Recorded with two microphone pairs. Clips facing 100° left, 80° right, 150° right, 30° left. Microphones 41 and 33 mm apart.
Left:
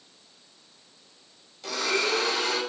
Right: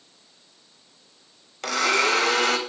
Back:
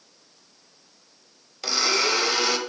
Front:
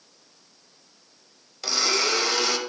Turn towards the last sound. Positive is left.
turn(degrees=-70)